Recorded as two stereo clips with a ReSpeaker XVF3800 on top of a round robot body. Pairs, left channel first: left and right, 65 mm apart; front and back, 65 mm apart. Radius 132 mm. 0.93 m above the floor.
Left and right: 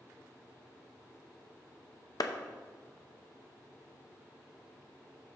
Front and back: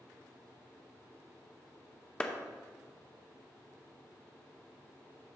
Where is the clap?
75° left, 0.9 m.